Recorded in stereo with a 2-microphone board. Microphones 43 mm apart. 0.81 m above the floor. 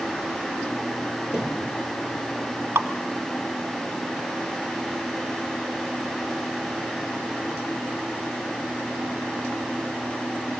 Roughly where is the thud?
Left.